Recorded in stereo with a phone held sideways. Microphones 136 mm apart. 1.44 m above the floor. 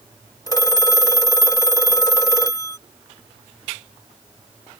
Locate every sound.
0.5 s a phone ringing: 25° left (ahead or behind)